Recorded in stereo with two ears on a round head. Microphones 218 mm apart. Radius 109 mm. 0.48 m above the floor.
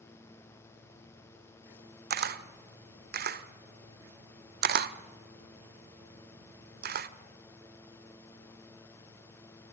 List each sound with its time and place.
2.1 s a camera shutter: 40° right (ahead or behind), 0.9 m